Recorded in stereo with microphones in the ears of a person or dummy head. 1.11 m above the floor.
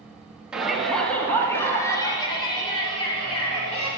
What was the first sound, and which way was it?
A shout, 5° right (ahead or behind).